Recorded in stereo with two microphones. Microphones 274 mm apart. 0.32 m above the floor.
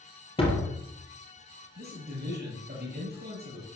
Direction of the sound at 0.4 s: 20° left (ahead or behind).